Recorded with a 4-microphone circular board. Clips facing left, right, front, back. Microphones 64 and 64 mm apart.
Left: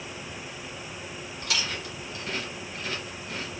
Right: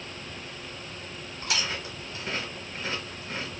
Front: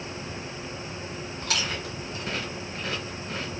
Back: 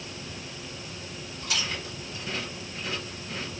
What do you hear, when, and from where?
1.4 s chewing: 30° right, 1.1 m